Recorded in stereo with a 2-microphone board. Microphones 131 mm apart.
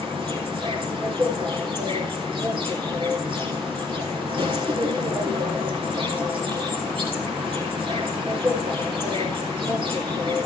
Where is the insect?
35° right (ahead or behind), 4 m.